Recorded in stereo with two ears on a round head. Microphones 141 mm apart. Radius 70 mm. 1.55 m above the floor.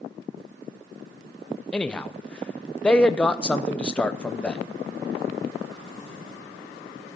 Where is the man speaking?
5° left (ahead or behind), 0.7 m.